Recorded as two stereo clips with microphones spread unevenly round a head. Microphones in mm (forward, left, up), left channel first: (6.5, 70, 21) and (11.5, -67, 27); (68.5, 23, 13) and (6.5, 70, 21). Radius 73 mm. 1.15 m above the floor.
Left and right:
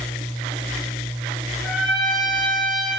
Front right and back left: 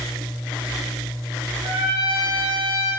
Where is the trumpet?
Straight behind, 0.7 m.